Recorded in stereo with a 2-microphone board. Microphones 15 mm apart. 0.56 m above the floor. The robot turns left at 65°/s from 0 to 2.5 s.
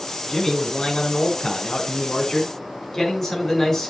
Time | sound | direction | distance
0.3 | a man speaking | 165° left | 4.5 m